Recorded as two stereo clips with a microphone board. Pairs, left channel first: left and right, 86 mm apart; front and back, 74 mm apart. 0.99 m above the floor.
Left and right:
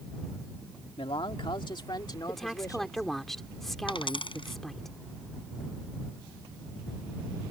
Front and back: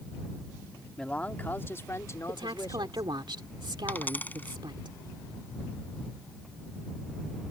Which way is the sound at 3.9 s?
65° left.